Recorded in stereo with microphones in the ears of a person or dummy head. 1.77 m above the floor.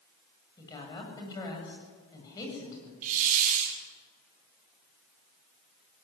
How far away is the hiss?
About 3 m.